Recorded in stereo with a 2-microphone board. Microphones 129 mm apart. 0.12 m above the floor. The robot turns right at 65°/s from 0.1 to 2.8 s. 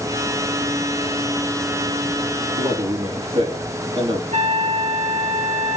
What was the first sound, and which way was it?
A man speaking, 55° right (ahead or behind).